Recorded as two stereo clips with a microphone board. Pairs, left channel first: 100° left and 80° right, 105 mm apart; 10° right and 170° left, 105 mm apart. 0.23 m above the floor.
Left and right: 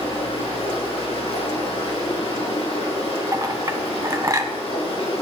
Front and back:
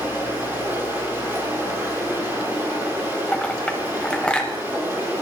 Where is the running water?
100° left, 5 m.